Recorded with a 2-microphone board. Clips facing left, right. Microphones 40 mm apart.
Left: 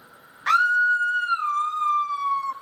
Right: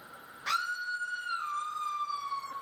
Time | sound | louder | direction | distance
0.5 | a scream | left 14 dB | 50° left (ahead or behind) | 0.5 m